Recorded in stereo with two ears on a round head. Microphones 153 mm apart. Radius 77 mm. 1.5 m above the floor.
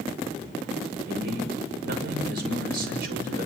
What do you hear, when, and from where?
1.1 s a man speaking: 65° right (ahead or behind), 6.5 m